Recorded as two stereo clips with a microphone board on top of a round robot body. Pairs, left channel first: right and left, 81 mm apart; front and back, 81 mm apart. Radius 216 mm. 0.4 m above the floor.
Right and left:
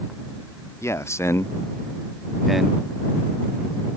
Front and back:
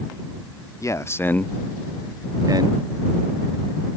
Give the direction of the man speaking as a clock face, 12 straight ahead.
1 o'clock.